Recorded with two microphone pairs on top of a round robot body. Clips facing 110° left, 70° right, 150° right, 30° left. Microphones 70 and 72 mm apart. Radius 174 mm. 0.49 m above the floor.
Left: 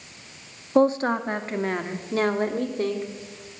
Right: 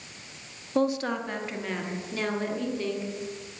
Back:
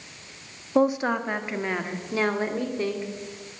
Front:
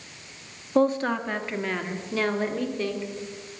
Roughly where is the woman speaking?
Behind left.